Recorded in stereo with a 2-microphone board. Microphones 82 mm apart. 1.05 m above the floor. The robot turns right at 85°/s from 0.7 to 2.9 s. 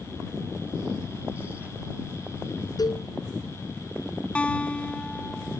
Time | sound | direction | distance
2.8 | a cowbell | 50° left (ahead or behind) | ?
4.3 | a guitar | 15° left (ahead or behind) | ?